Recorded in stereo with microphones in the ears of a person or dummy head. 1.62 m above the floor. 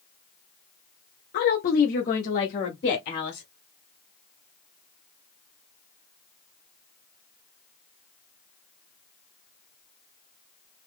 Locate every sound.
1.3 s a woman speaking: 55° left (ahead or behind), 0.6 m; by 3.5 s 50° left (ahead or behind), 1.6 m